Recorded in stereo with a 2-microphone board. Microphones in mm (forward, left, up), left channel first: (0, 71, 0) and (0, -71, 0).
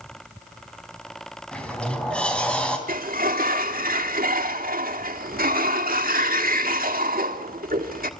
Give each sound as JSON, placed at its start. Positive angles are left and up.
{"t": 1.5, "sound": "a sliding door", "side_deg": 5, "distance_m": 3.0}
{"t": 2.9, "sound": "a sliding door", "side_deg": -80, "distance_m": 1.5}